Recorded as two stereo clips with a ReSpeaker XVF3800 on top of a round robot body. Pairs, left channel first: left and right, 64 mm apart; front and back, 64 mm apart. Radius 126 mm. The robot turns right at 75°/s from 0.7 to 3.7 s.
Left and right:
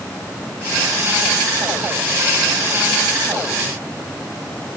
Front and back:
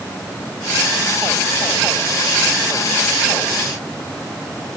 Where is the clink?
I don't hear a clink.